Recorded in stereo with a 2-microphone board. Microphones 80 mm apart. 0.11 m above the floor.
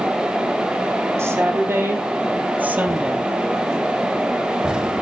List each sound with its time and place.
1.2 s a woman speaking: 35° right (ahead or behind), 4 m; by 3.3 s 15° right (ahead or behind), 2.5 m